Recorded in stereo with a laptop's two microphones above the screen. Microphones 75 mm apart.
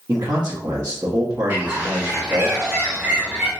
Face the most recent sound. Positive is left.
turn(degrees=-30)  # may be behind; listen again after turning